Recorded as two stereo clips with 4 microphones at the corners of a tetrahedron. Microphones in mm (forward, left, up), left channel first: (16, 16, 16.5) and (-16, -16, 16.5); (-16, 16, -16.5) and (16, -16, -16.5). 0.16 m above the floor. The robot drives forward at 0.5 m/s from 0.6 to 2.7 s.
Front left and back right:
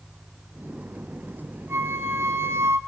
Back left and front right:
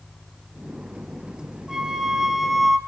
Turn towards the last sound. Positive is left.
turn(degrees=-135)